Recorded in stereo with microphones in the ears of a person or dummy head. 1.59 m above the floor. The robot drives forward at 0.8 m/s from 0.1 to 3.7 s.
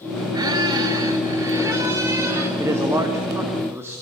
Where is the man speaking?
15° right (ahead or behind), 2.5 m; by 4.0 s 10° right (ahead or behind), 3 m.